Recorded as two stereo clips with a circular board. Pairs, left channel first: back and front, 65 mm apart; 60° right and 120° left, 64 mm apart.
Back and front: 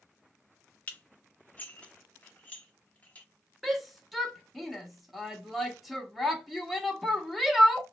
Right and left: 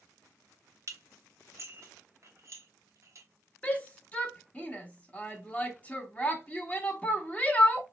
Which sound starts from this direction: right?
A shout, at 3.6 s.